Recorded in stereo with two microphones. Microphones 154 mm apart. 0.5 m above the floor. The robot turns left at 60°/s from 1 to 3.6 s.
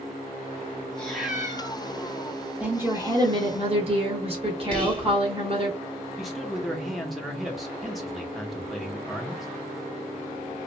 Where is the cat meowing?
10° left, 1.8 m; by 1.8 s 40° right, 1.8 m.